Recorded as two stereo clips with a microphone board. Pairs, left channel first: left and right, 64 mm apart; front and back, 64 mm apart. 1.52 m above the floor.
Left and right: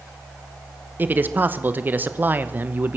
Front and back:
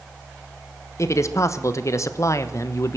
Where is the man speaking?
30° right, 1.1 m.